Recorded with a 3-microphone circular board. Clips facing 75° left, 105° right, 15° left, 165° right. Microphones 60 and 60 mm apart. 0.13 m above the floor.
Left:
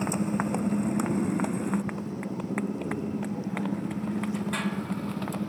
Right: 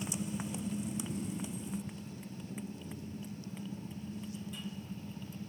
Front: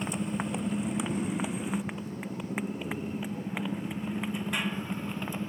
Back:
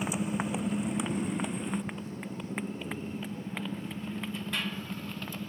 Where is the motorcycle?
110° left; by 5.5 s 85° left.